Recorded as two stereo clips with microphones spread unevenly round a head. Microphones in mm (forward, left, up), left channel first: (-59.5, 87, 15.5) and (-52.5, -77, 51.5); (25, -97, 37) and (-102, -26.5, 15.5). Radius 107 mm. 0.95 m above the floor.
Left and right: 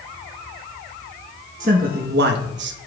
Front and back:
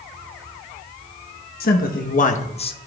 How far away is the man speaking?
About 1.0 m.